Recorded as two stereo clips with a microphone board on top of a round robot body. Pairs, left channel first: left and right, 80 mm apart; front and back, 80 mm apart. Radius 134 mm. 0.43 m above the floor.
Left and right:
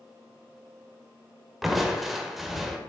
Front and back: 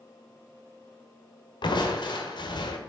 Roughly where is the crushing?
Ahead.